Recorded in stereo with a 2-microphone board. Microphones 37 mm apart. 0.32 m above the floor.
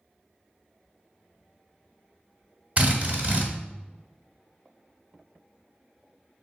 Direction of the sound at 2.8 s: 40° right (ahead or behind).